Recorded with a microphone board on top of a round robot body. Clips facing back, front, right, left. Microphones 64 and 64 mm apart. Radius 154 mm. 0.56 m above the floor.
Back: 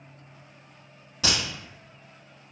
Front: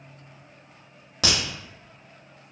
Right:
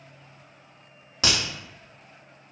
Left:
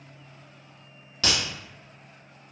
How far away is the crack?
About 0.6 m.